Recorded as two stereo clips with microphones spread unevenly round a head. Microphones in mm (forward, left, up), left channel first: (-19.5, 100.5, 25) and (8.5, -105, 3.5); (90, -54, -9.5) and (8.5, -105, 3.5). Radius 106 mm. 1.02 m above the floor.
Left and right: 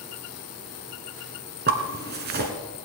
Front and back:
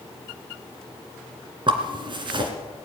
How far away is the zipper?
About 2 m.